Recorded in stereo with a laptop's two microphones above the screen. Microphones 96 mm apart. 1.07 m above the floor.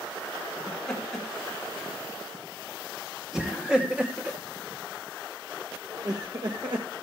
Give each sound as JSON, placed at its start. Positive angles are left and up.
{"t": 0.7, "sound": "laughter", "side_deg": 10, "distance_m": 3.5}